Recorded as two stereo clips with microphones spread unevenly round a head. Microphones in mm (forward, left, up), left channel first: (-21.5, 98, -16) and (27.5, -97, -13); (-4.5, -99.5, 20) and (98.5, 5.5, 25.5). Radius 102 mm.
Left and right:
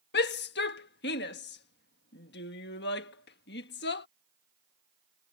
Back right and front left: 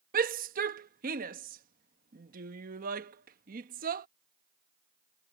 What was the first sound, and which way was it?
A shout, 70° left.